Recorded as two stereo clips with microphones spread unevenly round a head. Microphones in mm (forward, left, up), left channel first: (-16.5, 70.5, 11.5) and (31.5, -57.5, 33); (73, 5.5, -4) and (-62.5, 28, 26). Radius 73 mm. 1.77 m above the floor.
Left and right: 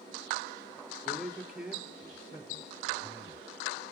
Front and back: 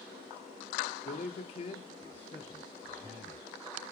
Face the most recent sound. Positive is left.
turn(degrees=-135)